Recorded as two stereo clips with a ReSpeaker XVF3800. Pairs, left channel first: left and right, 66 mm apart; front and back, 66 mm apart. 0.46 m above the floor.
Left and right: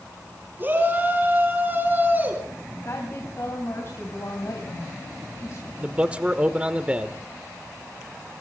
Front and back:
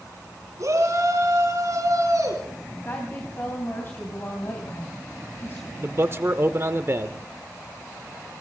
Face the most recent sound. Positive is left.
turn(degrees=-150)